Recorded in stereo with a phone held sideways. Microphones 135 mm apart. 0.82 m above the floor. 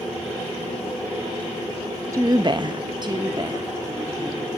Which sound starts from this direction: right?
A woman speaking, at 2.1 s.